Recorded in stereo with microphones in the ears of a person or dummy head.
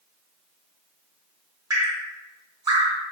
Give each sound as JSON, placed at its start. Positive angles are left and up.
{"t": 1.7, "sound": "dripping", "side_deg": -20, "distance_m": 1.3}